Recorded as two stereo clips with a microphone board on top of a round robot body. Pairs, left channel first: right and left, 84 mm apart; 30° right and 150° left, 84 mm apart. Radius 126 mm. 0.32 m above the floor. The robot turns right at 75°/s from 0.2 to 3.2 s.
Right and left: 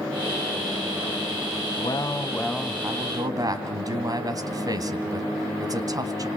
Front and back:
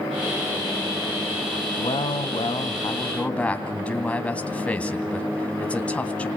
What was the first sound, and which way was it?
A man speaking, 60° right.